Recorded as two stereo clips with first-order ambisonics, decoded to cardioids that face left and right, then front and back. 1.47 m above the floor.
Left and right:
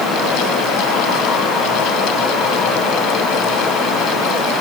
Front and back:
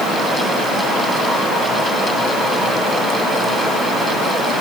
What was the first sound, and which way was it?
Only background noise.